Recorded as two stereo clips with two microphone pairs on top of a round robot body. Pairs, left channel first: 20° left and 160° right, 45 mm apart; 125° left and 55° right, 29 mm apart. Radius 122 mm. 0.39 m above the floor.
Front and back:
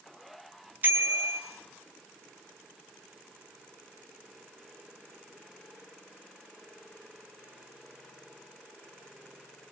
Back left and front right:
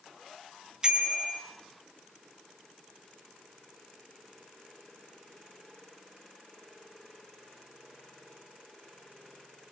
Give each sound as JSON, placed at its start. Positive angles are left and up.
{"t": 0.8, "sound": "a bicycle bell", "azimuth_deg": -115, "distance_m": 3.5}